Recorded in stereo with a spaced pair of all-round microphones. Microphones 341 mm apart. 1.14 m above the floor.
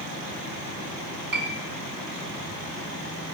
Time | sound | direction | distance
1.3 | a piano | 65° right (ahead or behind) | 4.5 m